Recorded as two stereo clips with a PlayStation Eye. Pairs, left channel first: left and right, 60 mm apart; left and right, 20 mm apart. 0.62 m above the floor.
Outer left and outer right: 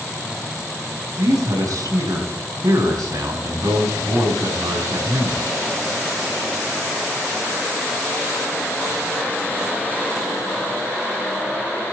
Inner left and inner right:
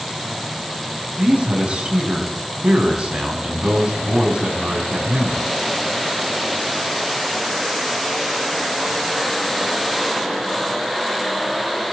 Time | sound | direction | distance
1.2 | a man speaking | 75° right (ahead or behind) | 5 m